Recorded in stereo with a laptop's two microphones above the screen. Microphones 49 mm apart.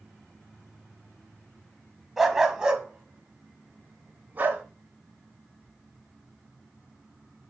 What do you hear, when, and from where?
2.2 s a dog barking: 5° right (ahead or behind), 1.8 m; by 4.6 s 35° right (ahead or behind), 2.5 m